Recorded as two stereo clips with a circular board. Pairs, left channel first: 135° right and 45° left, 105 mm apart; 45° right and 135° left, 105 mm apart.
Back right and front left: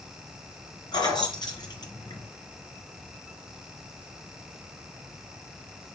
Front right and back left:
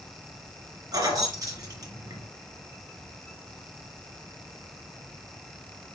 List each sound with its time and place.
0.9 s keys jangling: straight behind, 2.5 m